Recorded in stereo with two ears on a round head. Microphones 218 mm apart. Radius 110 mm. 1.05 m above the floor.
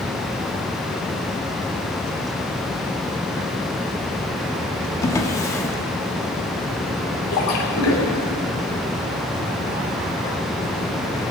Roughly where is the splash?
Left.